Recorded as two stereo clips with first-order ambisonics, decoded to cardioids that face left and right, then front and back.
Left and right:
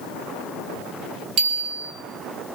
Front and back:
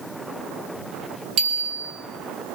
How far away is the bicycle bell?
About 5 m.